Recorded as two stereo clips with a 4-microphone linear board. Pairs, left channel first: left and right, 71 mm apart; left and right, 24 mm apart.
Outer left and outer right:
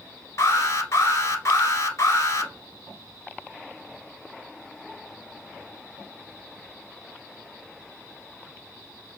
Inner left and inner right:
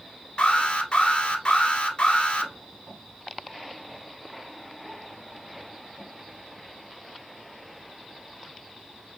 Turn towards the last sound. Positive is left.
turn(degrees=40)  # may be behind; listen again after turning